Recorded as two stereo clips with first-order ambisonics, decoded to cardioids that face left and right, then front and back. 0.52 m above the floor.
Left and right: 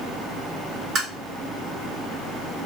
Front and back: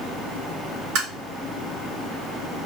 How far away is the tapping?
About 3 m.